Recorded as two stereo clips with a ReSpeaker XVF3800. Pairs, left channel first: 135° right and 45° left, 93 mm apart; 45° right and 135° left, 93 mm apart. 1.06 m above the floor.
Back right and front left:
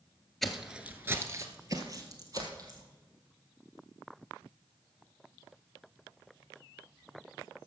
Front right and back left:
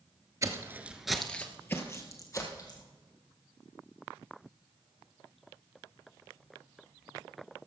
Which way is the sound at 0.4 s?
140° left.